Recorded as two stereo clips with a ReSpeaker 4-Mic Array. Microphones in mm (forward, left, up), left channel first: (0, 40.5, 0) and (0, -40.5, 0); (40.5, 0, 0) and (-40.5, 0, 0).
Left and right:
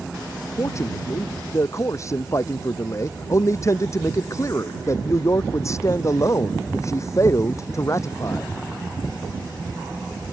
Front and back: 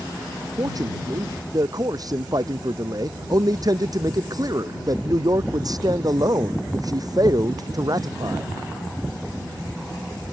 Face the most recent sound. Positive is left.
turn(degrees=140)